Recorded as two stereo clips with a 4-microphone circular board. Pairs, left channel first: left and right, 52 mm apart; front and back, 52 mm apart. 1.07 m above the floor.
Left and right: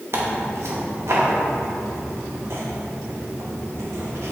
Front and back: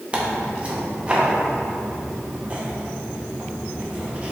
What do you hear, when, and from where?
0.1 s tearing paper: 115° right, 0.7 m